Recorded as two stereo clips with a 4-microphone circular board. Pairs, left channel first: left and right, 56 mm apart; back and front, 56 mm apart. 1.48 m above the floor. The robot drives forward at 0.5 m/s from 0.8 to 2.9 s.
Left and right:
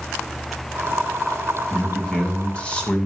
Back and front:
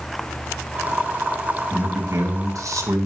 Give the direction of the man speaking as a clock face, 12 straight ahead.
11 o'clock.